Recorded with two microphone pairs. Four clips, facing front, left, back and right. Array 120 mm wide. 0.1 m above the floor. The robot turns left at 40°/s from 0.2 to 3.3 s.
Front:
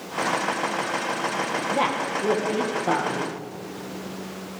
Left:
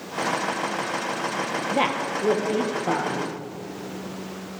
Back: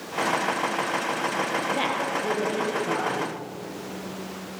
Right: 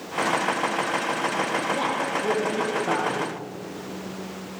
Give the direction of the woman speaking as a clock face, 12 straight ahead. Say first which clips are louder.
Left 1 dB, front 2 dB; 9 o'clock.